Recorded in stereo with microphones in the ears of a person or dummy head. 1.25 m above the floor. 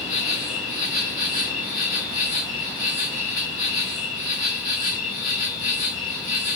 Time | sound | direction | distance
0.0 | an insect | 35° left (ahead or behind) | 1.8 m